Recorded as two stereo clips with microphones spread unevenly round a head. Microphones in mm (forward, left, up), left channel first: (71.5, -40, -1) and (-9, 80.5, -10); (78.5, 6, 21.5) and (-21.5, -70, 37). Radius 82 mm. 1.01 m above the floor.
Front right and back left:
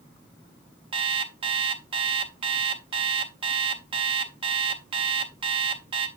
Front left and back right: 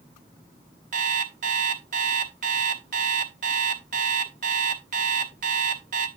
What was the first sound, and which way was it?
An alarm clock, 175° right.